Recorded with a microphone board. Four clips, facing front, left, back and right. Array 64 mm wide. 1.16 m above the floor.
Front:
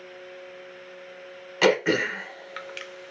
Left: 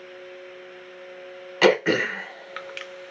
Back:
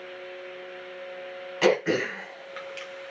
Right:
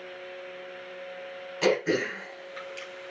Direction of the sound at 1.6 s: 70° left.